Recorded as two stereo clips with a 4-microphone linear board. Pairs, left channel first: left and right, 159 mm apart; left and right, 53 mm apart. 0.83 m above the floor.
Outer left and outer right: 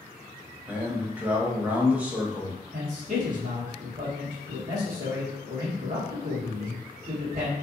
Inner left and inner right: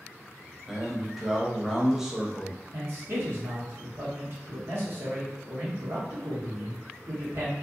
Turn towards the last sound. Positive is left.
turn(degrees=-55)  # may be behind; listen again after turning